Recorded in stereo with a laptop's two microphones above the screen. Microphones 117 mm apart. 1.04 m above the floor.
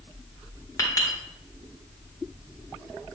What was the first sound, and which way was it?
A clink, 30° left (ahead or behind).